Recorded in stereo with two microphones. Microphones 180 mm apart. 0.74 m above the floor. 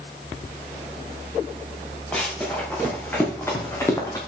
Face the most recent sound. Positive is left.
turn(degrees=20)  # may be behind; listen again after turning